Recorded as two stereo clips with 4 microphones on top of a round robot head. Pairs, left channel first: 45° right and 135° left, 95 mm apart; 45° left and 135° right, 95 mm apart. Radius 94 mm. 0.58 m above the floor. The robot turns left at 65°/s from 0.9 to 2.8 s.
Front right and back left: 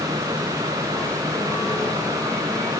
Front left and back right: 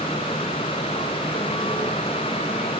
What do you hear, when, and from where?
Only background noise.